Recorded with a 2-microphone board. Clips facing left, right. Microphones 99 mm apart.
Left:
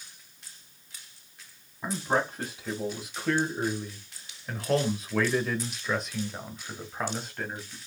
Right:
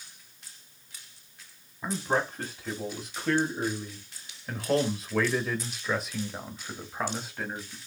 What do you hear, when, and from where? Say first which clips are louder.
1.8 s a man speaking: left 1 dB; 5° left (ahead or behind), 1.9 m; by 7.8 s 5° right (ahead or behind), 1.8 m